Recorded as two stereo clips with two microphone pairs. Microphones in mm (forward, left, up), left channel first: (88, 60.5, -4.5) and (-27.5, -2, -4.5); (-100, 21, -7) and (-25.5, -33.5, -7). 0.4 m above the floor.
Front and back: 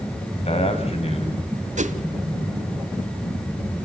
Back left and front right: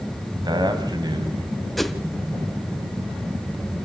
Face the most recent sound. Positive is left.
turn(degrees=-130)